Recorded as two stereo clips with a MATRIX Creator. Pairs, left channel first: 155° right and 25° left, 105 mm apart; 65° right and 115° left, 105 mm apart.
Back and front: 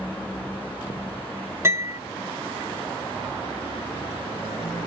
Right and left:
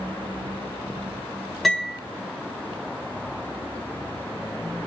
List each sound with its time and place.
1.6 s a piano: 20° left, 1.7 m